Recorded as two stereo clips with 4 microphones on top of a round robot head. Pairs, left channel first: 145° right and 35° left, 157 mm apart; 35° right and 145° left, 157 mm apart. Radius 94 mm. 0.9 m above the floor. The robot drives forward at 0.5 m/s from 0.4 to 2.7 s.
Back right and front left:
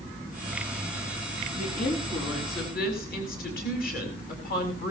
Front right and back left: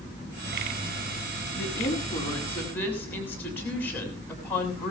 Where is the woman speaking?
110° right, 6.5 m; by 4.9 s 115° right, 6.5 m.